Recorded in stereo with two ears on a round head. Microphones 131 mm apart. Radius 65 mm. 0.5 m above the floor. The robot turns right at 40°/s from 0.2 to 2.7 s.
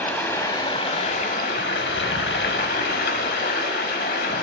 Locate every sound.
0.0 s running water: 15° left, 0.9 m; by 4.4 s 115° left, 0.9 m